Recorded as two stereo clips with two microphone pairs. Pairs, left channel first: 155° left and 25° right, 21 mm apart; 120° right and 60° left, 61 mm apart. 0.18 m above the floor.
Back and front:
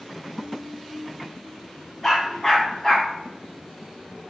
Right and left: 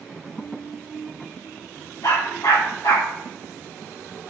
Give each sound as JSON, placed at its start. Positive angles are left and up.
{"t": 2.0, "sound": "a dog barking", "azimuth_deg": -125, "distance_m": 5.0}